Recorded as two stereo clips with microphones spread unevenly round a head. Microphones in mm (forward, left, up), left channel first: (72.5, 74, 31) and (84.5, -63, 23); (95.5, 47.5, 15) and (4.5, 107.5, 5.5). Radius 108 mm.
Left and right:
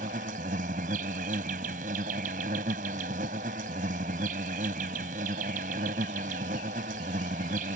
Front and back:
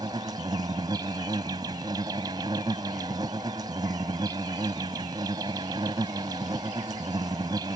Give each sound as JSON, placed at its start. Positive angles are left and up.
{"t": 0.0, "sound": "an insect", "azimuth_deg": -140}